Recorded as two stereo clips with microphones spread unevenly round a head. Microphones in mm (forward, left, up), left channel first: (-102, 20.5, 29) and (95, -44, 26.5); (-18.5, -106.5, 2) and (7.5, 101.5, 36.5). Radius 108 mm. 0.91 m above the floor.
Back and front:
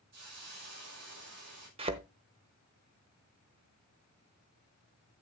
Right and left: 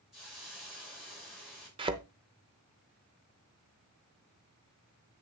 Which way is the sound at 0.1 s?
5° right.